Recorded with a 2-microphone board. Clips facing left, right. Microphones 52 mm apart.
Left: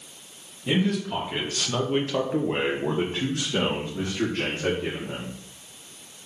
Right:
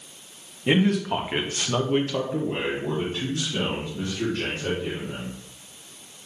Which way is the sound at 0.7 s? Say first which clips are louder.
Right 3 dB; 60° right (ahead or behind).